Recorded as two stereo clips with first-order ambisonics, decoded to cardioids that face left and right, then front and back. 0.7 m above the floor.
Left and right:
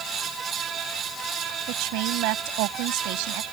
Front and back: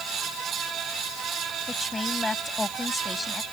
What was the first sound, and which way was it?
A woman speaking, 80° right.